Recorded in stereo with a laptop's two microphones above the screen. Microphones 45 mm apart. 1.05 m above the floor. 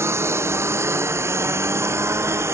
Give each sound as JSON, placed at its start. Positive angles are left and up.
{"t": 0.0, "sound": "a lawn mower", "side_deg": -70}